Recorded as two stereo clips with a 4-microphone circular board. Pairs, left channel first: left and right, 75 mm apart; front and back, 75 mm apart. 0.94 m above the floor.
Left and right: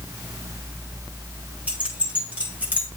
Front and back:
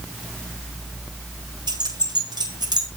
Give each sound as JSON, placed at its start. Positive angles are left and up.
{"t": 1.7, "sound": "keys jangling", "azimuth_deg": -165, "distance_m": 9.5}